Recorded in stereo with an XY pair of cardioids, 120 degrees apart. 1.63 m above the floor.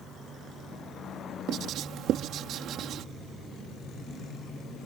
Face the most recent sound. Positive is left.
turn(degrees=-70)